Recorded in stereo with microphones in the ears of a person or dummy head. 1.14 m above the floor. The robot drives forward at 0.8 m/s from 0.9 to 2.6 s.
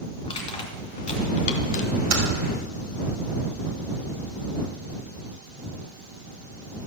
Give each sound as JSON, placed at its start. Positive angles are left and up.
{"t": 0.2, "sound": "crushing", "side_deg": 30, "distance_m": 1.9}
{"t": 2.1, "sound": "typing on a keyboard", "side_deg": -80, "distance_m": 2.5}